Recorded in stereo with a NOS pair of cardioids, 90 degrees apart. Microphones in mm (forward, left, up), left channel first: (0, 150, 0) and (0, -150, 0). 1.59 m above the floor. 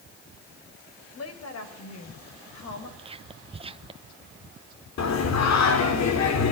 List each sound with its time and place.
1.1 s a woman speaking: 50° left, 6.5 m; by 2.9 s 65° left, 7 m
3.0 s whispering: 20° right, 1.2 m
5.0 s singing: 60° left, 4.5 m